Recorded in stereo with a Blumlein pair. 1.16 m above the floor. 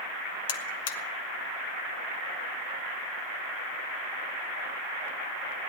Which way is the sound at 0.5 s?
55° left.